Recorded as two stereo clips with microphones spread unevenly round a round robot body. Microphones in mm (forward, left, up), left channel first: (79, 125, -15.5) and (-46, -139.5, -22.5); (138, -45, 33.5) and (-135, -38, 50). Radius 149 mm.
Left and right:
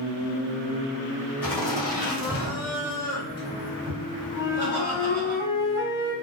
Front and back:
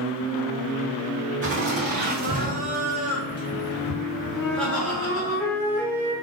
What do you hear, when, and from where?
1.4 s laughter: 150° left, 1.6 m; by 5.3 s 70° right, 1.7 m
4.3 s a flute: 35° right, 1.2 m